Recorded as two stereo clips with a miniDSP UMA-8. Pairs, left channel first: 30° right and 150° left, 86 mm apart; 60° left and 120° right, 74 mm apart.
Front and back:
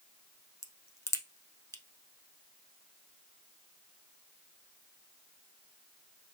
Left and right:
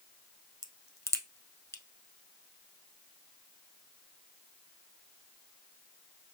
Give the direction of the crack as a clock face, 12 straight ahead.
11 o'clock.